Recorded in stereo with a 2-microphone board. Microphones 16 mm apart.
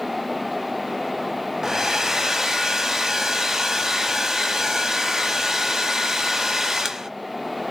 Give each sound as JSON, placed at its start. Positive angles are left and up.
{"t": 1.6, "sound": "a hair dryer", "side_deg": -20, "distance_m": 0.7}